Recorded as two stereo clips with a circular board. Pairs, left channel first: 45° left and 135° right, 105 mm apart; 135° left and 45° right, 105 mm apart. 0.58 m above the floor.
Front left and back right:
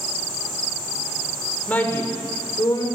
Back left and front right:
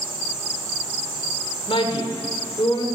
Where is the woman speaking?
120° left, 2 m; by 2.9 s 90° left, 2.5 m.